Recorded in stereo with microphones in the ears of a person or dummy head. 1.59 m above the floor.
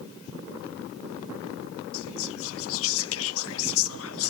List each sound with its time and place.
1.9 s whispering: 70° left (ahead or behind), 0.5 m